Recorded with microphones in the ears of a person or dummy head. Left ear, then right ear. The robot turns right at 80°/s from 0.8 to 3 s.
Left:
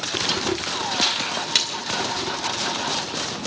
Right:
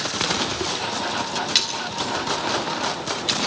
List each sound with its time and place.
1.6 s a splash: 25° left (ahead or behind), 2 m; by 1.8 s 5° left (ahead or behind), 2 m